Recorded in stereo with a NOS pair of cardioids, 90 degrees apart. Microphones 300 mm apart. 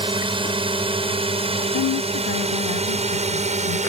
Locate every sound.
0.0 s a drone: 15° right; by 3.9 s 25° right
1.7 s a woman speaking: 65° left